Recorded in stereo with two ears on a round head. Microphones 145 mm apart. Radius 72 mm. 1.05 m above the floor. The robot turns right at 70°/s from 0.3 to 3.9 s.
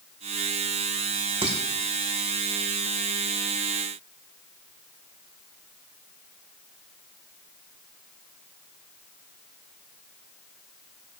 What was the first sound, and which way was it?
Dishes clattering, 35° right (ahead or behind).